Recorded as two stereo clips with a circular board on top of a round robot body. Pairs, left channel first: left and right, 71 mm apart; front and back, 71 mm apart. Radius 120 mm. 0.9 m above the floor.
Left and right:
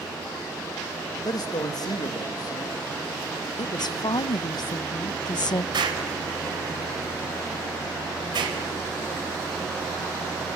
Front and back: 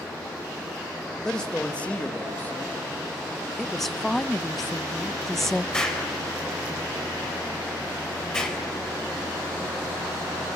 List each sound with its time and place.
1.2 s a man speaking: 80° left, 1.9 m; by 3.5 s 55° left, 2.5 m
3.6 s a woman speaking: 85° left, 0.5 m
5.7 s an explosion: 80° right, 4 m